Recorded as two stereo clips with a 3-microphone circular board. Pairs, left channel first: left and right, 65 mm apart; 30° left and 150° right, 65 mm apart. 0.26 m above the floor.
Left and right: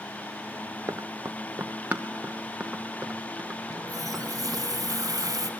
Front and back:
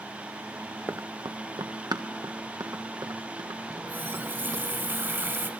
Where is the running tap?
100° right, 1.7 m.